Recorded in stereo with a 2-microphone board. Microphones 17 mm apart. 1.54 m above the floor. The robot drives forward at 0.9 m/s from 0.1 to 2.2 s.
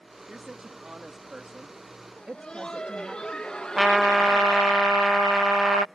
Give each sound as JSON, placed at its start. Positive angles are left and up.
{"t": 0.3, "sound": "a woman speaking", "side_deg": -40}
{"t": 2.2, "sound": "laughter", "side_deg": 55}
{"t": 3.8, "sound": "a trumpet", "side_deg": -20}